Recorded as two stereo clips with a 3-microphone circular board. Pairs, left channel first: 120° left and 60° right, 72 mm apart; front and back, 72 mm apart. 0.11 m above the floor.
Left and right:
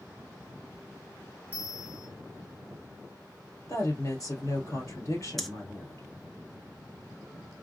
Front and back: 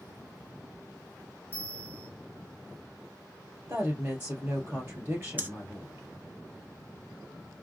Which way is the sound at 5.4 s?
155° right.